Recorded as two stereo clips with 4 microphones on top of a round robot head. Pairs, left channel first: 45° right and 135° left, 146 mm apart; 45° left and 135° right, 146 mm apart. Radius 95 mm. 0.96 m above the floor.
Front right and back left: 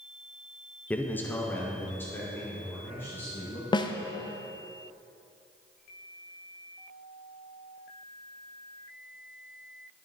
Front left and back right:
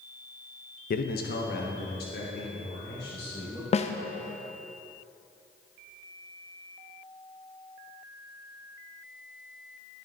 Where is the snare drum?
10° left, 0.7 m.